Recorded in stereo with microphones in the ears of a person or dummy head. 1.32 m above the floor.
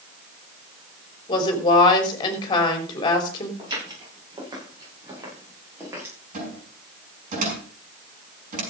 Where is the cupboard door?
50° right (ahead or behind), 6.5 m.